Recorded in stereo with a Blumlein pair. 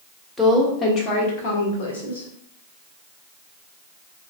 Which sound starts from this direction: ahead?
A woman speaking, at 0.4 s.